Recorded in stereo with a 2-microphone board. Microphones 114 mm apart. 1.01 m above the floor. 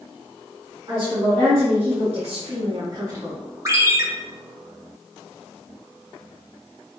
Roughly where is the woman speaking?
Right.